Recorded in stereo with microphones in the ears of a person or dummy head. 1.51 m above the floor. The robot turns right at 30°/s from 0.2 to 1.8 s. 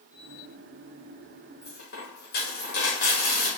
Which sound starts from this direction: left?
A dropped coin, at 1.6 s.